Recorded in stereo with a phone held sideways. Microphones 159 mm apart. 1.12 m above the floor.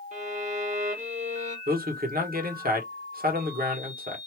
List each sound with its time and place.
0.1 s a violin: 50° right (ahead or behind), 1.2 m
1.7 s a man speaking: 65° right (ahead or behind), 1.2 m